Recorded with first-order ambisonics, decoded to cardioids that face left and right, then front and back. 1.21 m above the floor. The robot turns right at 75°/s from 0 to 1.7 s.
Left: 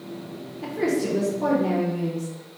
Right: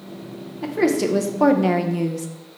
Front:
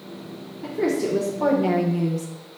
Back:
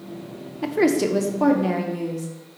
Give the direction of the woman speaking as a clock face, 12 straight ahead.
6 o'clock.